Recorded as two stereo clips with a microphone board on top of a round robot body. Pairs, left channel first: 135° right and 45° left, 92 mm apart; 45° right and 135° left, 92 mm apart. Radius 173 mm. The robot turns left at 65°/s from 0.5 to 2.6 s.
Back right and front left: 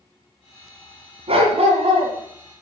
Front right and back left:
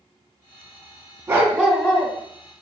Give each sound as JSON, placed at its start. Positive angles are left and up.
{"t": 1.3, "sound": "a dog barking", "azimuth_deg": 65, "distance_m": 2.5}